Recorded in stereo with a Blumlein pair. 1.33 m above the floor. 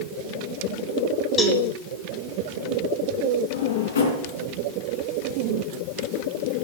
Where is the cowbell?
15° left, 2 m.